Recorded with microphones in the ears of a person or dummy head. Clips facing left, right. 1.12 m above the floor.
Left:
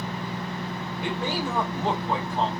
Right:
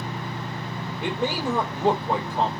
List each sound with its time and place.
1.0 s a man speaking: 80° right, 3.5 m